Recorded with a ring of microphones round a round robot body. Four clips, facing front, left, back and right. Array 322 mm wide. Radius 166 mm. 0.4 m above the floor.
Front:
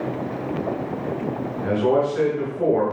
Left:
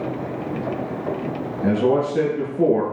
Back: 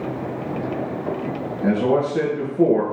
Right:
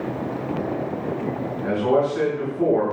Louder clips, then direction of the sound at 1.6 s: Left 1 dB, back 1 dB; 130° left.